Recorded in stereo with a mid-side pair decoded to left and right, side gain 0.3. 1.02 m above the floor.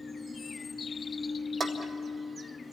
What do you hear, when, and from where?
0.0 s a machine running: 40° left, 3 m
1.6 s dishes clattering: 60° right, 1.8 m